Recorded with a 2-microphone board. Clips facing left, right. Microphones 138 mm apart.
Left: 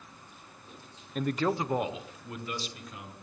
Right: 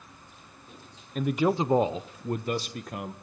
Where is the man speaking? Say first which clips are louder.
Right 4 dB; centre (ahead or behind), 0.9 m; by 3.1 s 55° right (ahead or behind), 1.8 m.